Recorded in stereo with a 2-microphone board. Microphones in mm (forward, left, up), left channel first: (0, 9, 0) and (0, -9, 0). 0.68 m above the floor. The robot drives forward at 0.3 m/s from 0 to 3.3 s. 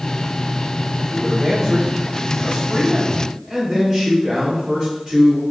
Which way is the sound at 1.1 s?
15° right (ahead or behind).